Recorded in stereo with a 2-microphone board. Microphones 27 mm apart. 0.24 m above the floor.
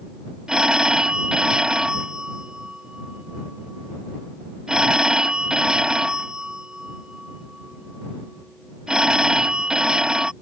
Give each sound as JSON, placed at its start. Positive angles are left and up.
{"t": 0.5, "sound": "a phone ringing", "side_deg": -25}